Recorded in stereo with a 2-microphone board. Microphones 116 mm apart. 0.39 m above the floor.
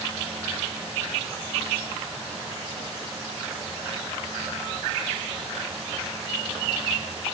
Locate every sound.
Only background noise.